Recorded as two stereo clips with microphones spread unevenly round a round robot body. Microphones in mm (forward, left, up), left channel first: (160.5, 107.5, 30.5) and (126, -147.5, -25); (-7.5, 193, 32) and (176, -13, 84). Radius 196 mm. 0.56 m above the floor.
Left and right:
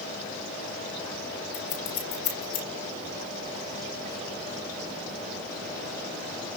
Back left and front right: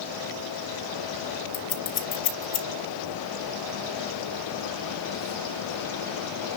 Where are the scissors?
110° left, 4 m.